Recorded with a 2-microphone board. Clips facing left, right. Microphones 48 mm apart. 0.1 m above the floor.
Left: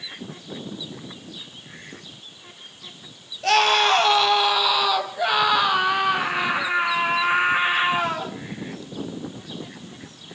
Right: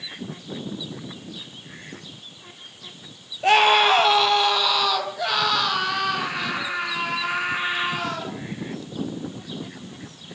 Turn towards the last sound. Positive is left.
turn(degrees=30)  # may be behind; listen again after turning